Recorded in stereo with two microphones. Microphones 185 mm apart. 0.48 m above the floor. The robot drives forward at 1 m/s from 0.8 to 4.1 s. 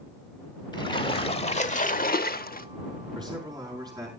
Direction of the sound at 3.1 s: 25° right (ahead or behind).